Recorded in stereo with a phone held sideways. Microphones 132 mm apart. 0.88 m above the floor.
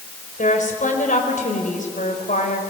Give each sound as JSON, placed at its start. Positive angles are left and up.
{"t": 0.4, "sound": "a woman speaking", "side_deg": 80, "distance_m": 4.5}